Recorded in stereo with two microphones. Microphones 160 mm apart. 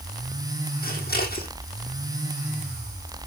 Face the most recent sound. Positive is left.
turn(degrees=75)  # may be behind; listen again after turning